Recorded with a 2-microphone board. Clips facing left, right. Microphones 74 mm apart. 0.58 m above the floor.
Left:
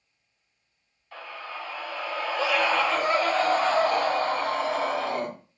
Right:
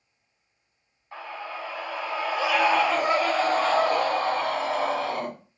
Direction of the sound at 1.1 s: 20° right (ahead or behind).